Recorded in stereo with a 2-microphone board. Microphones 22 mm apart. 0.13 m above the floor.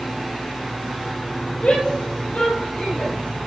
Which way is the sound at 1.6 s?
65° left (ahead or behind).